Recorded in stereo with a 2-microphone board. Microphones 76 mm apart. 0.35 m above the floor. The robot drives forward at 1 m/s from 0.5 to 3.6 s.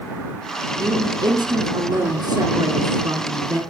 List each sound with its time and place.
0.8 s a woman speaking: 70° right (ahead or behind), 2.5 m; by 3.6 s 45° right (ahead or behind), 3.5 m